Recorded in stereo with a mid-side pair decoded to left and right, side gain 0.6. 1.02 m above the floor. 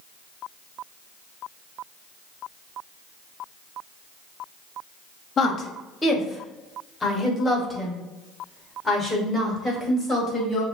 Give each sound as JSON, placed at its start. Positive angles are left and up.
{"t": 5.4, "sound": "a woman speaking", "azimuth_deg": 35, "distance_m": 1.2}